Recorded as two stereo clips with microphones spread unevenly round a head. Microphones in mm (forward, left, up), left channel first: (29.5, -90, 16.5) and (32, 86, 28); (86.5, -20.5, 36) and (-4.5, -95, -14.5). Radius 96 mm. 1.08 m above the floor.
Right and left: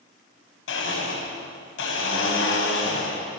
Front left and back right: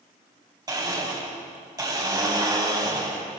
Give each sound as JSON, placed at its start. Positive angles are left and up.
{"t": 0.7, "sound": "a blender", "azimuth_deg": -85, "distance_m": 7.0}